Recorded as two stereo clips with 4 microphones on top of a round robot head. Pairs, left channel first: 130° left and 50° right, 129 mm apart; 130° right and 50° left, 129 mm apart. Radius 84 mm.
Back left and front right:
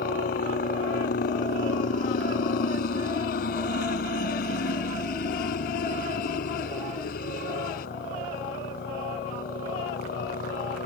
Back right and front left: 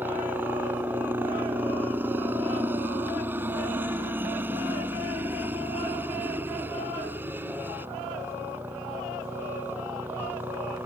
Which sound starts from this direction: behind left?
A helicopter, at 0.0 s.